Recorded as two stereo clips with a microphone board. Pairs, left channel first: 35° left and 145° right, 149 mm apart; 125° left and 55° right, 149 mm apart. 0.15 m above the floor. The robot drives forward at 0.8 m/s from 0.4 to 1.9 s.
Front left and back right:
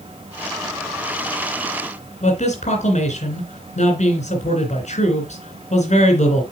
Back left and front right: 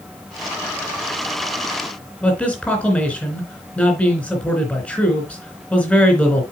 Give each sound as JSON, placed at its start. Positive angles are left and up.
{"t": 2.2, "sound": "a man speaking", "azimuth_deg": 45, "distance_m": 3.0}